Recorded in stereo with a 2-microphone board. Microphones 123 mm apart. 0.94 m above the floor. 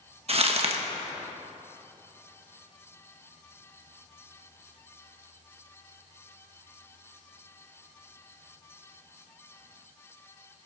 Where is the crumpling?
50° right (ahead or behind), 1.2 m.